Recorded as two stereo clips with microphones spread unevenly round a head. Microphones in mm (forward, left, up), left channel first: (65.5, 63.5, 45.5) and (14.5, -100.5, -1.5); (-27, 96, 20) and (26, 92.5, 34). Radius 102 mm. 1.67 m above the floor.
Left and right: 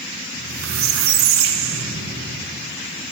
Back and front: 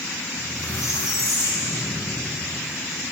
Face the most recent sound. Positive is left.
turn(degrees=-115)